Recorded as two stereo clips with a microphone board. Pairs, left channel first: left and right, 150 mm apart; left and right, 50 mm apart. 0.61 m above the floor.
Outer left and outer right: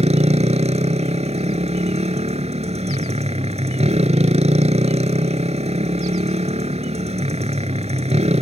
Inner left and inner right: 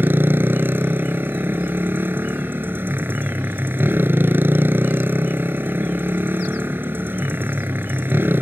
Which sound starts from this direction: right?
A motorcycle, at 0.0 s.